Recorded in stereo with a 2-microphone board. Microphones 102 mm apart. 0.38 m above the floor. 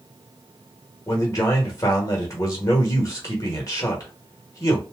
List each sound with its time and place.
1.1 s a man speaking: 35° left (ahead or behind), 1.1 m